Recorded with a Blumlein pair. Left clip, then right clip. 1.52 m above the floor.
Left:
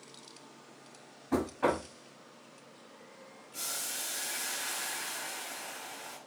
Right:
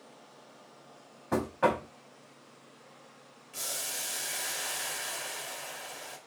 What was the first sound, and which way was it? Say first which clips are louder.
Knocking: right 2 dB; 25° right.